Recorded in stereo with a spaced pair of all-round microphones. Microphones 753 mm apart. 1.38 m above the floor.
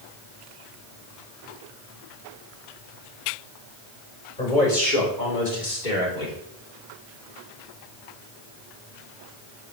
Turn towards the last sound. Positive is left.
turn(degrees=85)